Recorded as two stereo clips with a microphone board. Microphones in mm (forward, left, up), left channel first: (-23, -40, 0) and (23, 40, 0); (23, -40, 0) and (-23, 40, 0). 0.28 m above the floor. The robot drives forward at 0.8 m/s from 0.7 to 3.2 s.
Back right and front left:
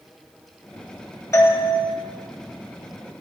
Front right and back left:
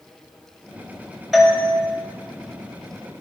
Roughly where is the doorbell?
Behind right.